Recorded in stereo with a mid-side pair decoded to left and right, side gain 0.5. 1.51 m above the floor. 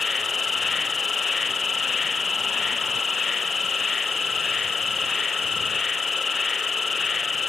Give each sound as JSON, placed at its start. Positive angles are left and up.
{"t": 0.0, "sound": "an insect", "azimuth_deg": 25}